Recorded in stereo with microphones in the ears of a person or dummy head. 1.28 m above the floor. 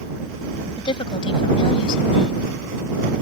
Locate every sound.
0.8 s a woman speaking: 30° left (ahead or behind); by 2.4 s 35° left (ahead or behind)